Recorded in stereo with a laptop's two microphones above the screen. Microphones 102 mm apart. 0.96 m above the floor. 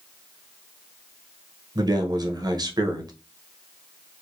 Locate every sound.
1.8 s a man speaking: 40° right (ahead or behind), 0.9 m